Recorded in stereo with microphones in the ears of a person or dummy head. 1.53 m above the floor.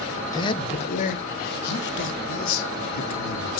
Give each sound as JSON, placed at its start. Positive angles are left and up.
{"t": 0.3, "sound": "a man speaking", "side_deg": 25, "distance_m": 1.2}